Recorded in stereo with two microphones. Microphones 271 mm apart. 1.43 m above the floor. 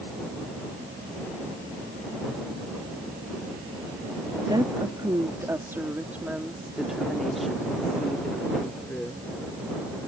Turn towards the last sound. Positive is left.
turn(degrees=5)  # may be behind; listen again after turning